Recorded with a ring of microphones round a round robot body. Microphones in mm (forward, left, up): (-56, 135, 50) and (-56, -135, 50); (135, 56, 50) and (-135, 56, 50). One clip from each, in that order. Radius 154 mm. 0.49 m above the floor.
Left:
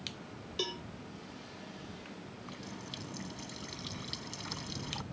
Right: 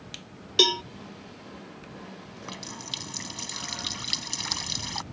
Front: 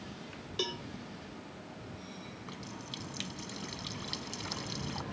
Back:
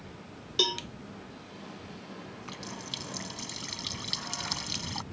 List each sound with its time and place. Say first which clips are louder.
0.6 s a cowbell: right 17 dB, back 9 dB; 115° right
2.2 s a running tap: right 7 dB, back 4 dB; 110° right